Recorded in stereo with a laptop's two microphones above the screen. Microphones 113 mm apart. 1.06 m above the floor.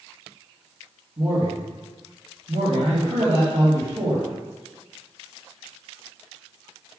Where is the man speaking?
70° right (ahead or behind), 2.5 m.